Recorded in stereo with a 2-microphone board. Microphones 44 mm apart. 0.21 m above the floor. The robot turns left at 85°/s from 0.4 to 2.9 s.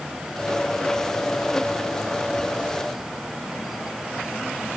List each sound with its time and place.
Only background noise.